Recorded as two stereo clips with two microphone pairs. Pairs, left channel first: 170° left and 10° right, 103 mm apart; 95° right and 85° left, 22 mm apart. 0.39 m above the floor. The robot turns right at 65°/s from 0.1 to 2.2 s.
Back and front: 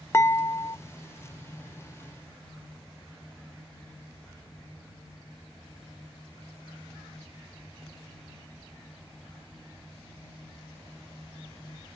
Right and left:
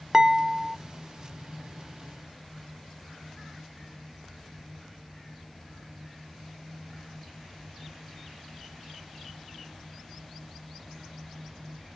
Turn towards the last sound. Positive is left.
turn(degrees=-105)